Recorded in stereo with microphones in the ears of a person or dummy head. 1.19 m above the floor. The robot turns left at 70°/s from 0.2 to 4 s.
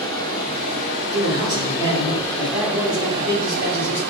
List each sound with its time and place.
0.0 s running water: 155° left, 1.1 m; by 4.1 s 110° right, 1.1 m
1.1 s a man speaking: 35° right, 2.5 m; by 4.0 s 125° left, 2.5 m